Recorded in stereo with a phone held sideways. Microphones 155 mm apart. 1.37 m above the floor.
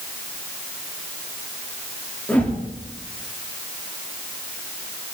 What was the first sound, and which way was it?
A whoosh, 10° left (ahead or behind).